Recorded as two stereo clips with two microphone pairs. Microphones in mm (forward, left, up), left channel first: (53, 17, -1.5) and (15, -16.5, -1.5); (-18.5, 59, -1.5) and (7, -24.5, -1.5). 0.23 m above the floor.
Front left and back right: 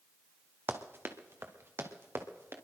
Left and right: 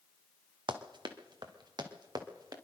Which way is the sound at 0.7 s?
95° right.